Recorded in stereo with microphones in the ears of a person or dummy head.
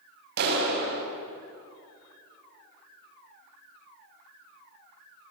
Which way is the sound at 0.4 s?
60° right (ahead or behind).